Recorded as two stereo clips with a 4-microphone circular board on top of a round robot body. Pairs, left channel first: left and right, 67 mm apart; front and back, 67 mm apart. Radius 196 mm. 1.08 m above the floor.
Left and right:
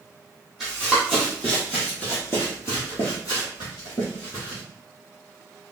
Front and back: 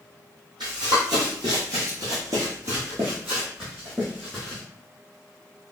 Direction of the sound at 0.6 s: 175° right.